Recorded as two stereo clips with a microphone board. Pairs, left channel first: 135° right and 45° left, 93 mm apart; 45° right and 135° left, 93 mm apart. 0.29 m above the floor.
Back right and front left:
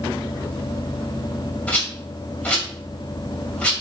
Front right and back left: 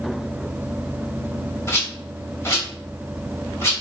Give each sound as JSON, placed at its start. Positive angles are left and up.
{"t": 1.7, "sound": "a rattle", "azimuth_deg": -70, "distance_m": 1.8}